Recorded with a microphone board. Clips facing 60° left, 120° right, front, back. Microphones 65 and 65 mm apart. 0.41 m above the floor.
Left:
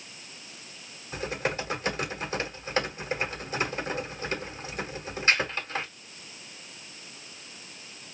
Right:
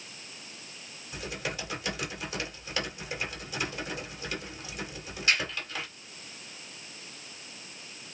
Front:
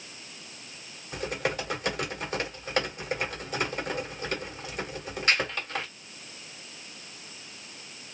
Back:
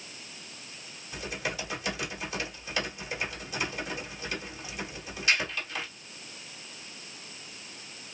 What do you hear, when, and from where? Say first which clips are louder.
1.1 s typing on a keyboard: left 6 dB, front 5 dB; 25° left, 2 m